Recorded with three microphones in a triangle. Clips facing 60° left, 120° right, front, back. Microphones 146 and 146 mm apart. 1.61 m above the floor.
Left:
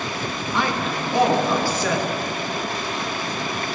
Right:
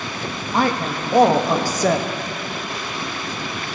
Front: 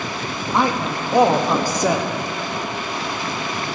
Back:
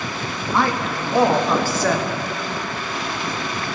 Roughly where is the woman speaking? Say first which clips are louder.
Right 4 dB, front 1 dB; right.